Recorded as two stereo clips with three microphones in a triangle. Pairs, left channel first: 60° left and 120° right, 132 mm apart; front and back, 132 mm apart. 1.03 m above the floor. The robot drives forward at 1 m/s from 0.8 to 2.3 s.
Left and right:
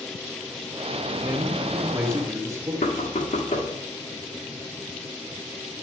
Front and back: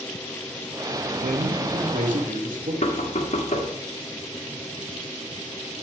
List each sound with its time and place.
1.2 s a man speaking: 165° left, 1.1 m; by 2.7 s 170° left, 2 m
2.8 s knocking: 35° left, 1.4 m